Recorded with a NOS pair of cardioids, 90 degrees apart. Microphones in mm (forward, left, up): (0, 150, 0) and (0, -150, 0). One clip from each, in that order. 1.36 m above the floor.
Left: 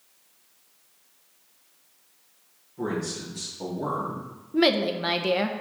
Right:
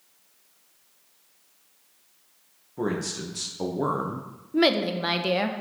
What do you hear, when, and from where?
2.8 s a man speaking: 65° right, 1.6 m; by 4.3 s 45° right, 0.8 m
4.5 s a woman speaking: 5° right, 0.8 m